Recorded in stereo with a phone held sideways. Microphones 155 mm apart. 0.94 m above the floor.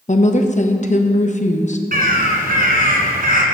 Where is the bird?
70° right (ahead or behind), 2.0 m.